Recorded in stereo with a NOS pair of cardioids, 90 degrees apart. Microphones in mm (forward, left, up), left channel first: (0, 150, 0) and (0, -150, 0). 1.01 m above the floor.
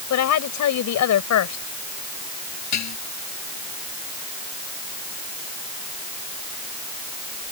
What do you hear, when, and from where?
0.1 s a woman speaking: 70° left
2.7 s dishes clattering: 65° left